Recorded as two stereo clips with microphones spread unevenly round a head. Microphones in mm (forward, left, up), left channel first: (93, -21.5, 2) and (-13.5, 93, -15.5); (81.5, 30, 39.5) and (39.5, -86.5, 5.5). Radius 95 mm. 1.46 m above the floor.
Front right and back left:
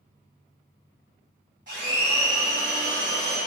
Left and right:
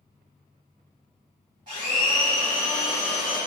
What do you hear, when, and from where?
1.7 s a blender: straight behind, 1.3 m